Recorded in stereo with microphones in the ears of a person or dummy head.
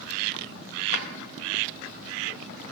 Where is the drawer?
50° left (ahead or behind), 1.4 m.